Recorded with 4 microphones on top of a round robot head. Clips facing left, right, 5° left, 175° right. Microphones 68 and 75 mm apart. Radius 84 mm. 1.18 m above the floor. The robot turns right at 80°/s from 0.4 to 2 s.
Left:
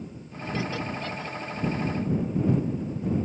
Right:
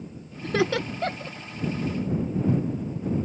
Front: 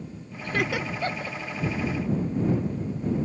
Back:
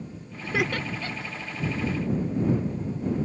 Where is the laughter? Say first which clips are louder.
Right 6 dB, even; 100° right; by 1.4 s 30° right.